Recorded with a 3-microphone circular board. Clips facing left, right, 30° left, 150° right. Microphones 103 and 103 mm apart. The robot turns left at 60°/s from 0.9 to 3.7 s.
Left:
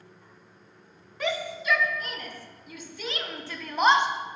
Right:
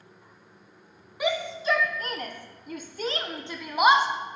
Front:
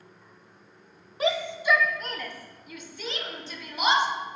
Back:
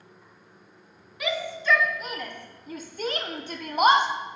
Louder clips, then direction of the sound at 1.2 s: Right 3 dB, front 3 dB; 15° right.